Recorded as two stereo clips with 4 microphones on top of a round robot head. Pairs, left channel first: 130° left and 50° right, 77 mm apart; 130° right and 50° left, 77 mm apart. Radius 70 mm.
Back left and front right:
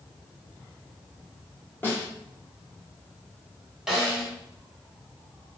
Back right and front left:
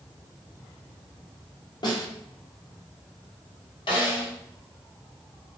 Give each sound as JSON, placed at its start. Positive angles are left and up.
{"t": 1.8, "sound": "a snare drum", "azimuth_deg": -165, "distance_m": 3.0}
{"t": 3.9, "sound": "a snare drum", "azimuth_deg": -135, "distance_m": 4.0}